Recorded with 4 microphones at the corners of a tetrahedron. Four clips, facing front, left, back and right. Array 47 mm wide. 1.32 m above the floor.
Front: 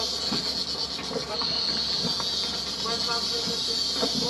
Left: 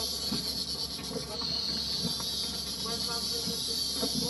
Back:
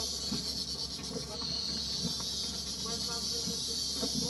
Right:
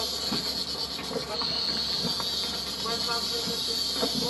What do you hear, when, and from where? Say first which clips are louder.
0.0 s an insect: right 4 dB, front 8 dB; 35° right